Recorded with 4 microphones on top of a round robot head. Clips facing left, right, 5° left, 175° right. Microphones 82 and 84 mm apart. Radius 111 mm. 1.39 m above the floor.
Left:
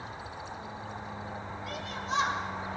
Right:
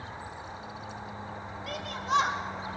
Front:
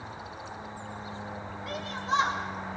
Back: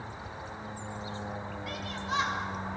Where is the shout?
60° right, 3 m.